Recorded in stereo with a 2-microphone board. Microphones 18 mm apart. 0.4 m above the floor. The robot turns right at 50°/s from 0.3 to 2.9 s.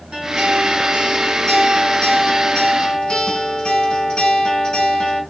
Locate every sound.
0.1 s a guitar: 55° right, 2 m; by 5.2 s 75° left, 2 m